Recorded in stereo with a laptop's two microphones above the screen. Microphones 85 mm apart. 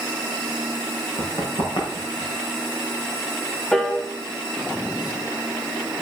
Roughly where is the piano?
Centre.